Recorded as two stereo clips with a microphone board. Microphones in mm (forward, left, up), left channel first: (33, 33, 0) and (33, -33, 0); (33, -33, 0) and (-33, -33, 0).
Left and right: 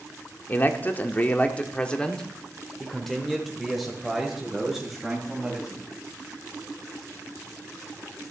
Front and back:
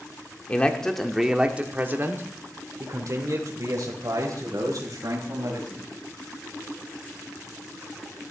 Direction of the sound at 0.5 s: 55° left.